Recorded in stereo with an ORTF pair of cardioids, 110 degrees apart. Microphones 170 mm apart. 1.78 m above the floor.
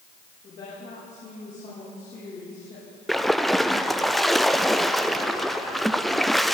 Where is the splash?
Straight ahead, 0.6 m.